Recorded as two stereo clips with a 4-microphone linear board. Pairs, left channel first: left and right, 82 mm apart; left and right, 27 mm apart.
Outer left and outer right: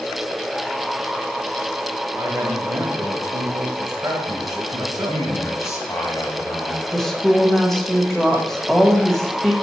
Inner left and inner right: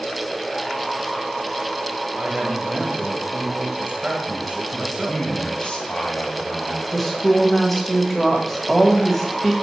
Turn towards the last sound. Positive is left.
turn(degrees=5)  # may be behind; listen again after turning